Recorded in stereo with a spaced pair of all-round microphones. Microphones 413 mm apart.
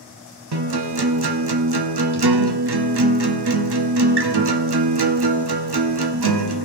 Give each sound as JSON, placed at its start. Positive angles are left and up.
{"t": 0.5, "sound": "a guitar", "side_deg": -70, "distance_m": 0.8}